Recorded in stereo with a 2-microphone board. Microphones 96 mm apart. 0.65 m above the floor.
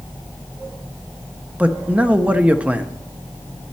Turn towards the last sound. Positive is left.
turn(degrees=-15)  # may be behind; listen again after turning